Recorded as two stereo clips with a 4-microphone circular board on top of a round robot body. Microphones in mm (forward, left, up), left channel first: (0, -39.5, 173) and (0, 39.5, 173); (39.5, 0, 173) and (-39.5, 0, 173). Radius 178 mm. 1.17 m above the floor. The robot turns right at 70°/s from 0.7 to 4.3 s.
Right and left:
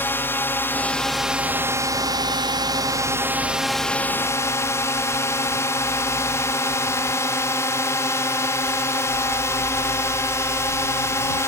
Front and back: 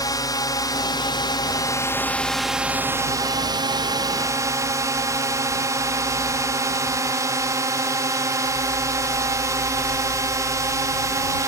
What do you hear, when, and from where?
0.0 s a drone: 30° right; by 11.5 s 140° right